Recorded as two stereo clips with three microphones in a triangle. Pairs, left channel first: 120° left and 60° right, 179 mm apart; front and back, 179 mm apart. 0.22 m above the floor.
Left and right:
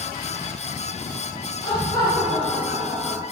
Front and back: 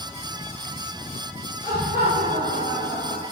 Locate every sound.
1.6 s laughter: 55° left, 3.5 m; by 3.2 s 25° left, 2.5 m